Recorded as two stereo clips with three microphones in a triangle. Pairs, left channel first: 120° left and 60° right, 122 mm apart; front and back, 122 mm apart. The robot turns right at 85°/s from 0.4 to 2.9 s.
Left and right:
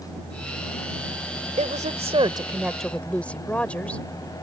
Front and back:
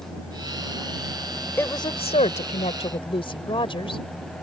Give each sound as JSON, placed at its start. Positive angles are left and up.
{"t": 1.6, "sound": "a woman speaking", "azimuth_deg": -70}